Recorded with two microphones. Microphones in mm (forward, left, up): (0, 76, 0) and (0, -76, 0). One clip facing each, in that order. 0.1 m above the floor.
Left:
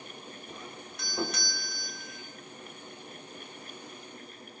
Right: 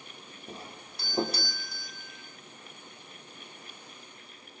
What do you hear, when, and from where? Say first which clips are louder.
0.5 s a doorbell: right 4 dB; 35° right (ahead or behind), 5.5 m